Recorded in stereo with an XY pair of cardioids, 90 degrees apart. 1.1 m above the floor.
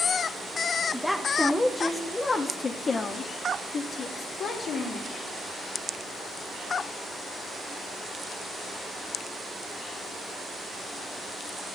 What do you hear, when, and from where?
0.9 s a woman speaking: 5° left, 1.4 m; by 5.2 s 75° left, 2.5 m